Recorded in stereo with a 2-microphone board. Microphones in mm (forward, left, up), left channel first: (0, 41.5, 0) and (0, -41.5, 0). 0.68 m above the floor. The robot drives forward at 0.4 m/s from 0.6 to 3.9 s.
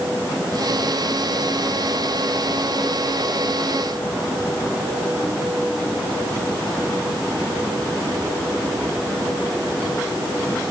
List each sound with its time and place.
Only background noise.